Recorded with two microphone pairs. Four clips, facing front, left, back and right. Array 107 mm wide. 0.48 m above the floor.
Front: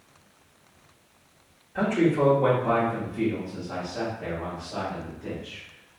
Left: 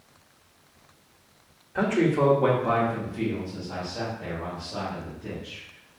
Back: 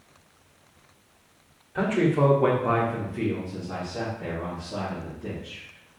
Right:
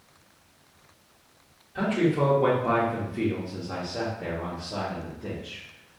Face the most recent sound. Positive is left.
turn(degrees=-95)